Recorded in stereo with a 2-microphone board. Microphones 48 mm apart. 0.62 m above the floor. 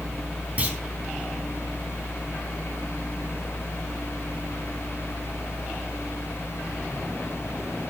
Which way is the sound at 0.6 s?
30° right (ahead or behind).